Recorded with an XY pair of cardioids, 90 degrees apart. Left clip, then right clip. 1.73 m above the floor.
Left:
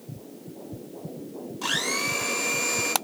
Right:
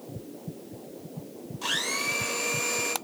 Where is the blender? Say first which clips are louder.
Left 2 dB; 25° left, 0.9 m.